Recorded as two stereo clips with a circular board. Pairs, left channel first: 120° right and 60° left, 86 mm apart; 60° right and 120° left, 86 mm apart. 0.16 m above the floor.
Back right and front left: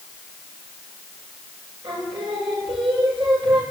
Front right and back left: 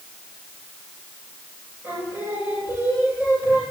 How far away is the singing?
About 8 m.